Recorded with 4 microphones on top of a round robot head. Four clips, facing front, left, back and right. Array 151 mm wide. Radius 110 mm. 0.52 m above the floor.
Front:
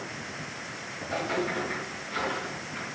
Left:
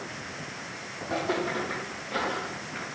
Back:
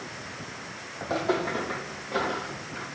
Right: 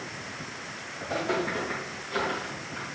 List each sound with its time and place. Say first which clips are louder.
1.0 s footsteps: even, back 3 dB; 175° left, 2.0 m; by 2.9 s 100° left, 0.6 m